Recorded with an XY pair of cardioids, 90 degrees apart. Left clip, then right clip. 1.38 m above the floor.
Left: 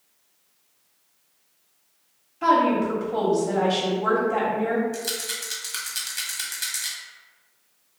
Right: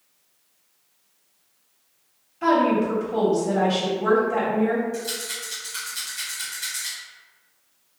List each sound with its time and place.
2.4 s a woman speaking: 5° left, 1.3 m
4.9 s a rattle: 65° left, 1.1 m